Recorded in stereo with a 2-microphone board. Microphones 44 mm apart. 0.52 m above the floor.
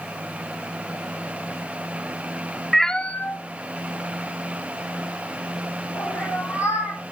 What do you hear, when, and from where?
2.7 s a cat meowing: centre (ahead or behind), 0.5 m; by 7.0 s 80° left, 3.5 m